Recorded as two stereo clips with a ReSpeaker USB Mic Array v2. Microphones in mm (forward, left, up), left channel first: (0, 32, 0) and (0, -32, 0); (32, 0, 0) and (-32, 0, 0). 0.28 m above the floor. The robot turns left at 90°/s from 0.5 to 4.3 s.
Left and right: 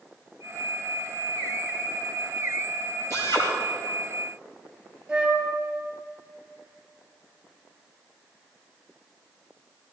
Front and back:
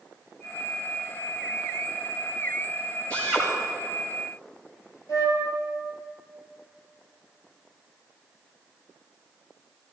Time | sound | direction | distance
3.1 | a drill | 140° left | 5 m
5.1 | a flute | 5° right | 4.5 m